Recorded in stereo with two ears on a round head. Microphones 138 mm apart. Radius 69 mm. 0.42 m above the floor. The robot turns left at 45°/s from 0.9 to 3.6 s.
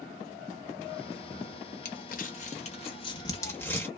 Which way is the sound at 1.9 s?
55° left (ahead or behind).